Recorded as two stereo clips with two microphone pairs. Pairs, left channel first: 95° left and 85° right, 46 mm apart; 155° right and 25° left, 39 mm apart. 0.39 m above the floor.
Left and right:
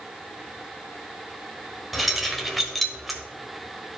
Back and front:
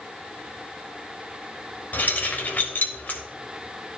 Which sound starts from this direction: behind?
Keys jangling, at 1.9 s.